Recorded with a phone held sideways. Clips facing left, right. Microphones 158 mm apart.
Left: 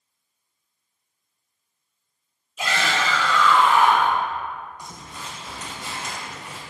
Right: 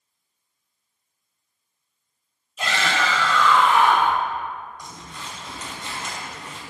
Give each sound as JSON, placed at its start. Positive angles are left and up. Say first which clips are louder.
{"t": 2.6, "sound": "a shout", "louder": "even", "side_deg": 5, "distance_m": 3.0}
{"t": 4.8, "sound": "crumpling", "louder": "even", "side_deg": 10, "distance_m": 2.0}